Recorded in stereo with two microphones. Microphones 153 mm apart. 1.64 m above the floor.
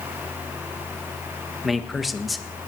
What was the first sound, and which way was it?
A man speaking, centre (ahead or behind).